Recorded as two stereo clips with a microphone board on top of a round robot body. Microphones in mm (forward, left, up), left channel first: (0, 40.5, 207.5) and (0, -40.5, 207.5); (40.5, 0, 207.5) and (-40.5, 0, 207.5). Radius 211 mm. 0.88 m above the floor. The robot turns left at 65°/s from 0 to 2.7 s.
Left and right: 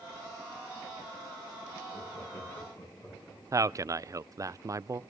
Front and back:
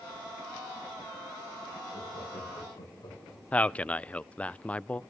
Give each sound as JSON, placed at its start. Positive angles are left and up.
{"t": 1.9, "sound": "laughter", "azimuth_deg": 90, "distance_m": 8.0}
{"t": 3.5, "sound": "a man speaking", "azimuth_deg": -70, "distance_m": 0.6}